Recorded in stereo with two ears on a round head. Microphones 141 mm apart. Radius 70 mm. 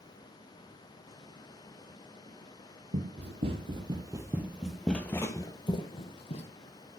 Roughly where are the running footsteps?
Right.